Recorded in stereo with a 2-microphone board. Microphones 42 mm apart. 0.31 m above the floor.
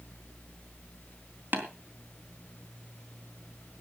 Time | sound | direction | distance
1.5 | tapping | 55° right (ahead or behind) | 3.5 m